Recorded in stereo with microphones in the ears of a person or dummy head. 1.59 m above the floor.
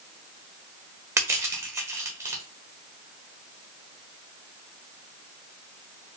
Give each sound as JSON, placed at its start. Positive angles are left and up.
{"t": 1.2, "sound": "crushing", "side_deg": -10, "distance_m": 1.1}